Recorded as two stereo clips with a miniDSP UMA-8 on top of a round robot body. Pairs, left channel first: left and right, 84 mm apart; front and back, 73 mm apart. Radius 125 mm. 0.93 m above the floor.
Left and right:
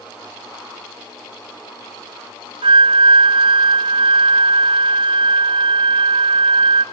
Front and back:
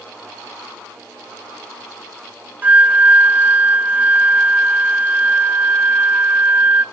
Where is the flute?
110° right, 0.8 m.